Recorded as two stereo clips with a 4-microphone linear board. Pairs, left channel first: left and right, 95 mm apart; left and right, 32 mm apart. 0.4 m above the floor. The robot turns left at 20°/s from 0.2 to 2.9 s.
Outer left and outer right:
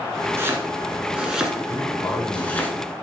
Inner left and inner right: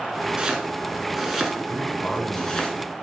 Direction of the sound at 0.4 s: 25° right (ahead or behind).